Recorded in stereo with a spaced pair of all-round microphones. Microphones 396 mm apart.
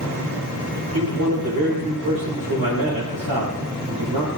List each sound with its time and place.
0.9 s a man speaking: 75° right (ahead or behind), 6 m